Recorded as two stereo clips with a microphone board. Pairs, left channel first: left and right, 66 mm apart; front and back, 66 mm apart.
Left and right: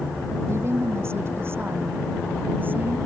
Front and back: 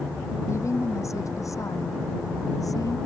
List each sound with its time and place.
0.5 s a woman speaking: 40° right; by 3.0 s 30° right